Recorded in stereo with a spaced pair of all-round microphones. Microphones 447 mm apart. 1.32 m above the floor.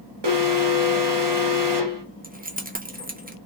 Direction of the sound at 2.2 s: 20° right (ahead or behind).